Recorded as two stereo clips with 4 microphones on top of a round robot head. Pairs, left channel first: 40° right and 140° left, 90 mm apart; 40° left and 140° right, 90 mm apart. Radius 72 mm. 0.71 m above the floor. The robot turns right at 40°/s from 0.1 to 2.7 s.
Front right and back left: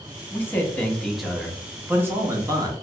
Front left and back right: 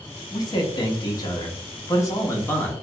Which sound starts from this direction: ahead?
A man speaking, at 0.3 s.